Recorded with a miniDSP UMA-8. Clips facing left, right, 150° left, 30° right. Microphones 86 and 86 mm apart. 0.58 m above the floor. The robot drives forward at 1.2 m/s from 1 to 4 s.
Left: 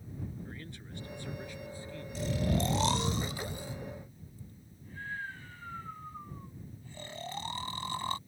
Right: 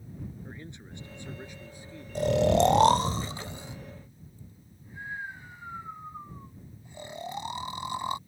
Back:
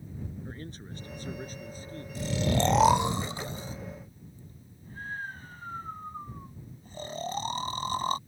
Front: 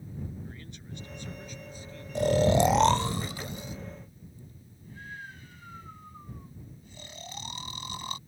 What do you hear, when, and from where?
0.5 s a man speaking: 160° right
2.1 s snoring: 55° right; by 8.2 s 160° right